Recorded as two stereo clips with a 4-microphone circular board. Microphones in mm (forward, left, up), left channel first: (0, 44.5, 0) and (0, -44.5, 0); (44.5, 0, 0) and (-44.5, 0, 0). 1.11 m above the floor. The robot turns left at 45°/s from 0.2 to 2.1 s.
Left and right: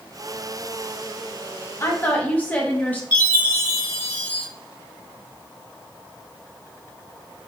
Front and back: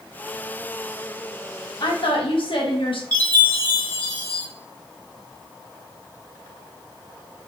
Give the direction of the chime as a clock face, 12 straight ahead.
8 o'clock.